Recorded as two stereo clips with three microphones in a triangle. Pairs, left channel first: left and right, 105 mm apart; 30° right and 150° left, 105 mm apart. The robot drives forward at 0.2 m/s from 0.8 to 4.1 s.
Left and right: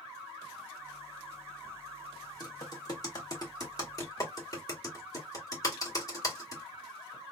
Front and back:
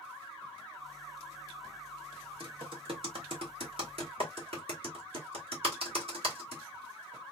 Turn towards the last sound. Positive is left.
turn(degrees=145)